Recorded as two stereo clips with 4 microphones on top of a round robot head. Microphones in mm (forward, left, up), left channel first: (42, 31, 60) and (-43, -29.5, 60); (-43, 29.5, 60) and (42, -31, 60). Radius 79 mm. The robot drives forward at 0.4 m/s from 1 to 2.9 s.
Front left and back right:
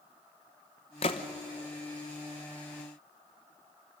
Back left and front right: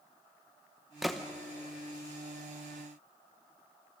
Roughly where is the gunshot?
Ahead left.